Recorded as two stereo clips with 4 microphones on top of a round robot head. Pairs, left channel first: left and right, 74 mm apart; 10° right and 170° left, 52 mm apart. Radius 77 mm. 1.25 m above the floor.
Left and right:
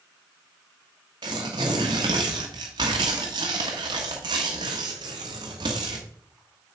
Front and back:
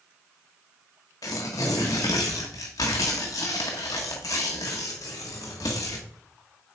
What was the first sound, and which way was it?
Tearing paper, 45° right.